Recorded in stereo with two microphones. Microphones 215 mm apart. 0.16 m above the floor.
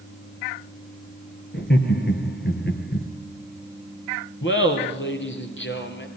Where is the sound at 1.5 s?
55° left (ahead or behind), 3 m.